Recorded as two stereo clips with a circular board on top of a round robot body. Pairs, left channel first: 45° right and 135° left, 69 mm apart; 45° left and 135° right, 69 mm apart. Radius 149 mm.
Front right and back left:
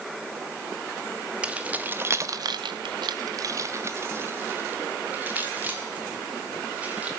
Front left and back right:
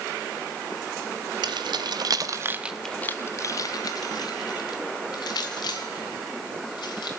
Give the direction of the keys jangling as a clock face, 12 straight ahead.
5 o'clock.